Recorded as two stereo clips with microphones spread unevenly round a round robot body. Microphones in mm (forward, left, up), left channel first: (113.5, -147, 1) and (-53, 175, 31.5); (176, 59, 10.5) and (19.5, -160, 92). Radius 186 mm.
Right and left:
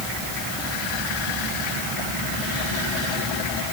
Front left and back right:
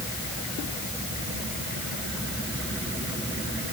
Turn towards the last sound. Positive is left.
No sound to turn to.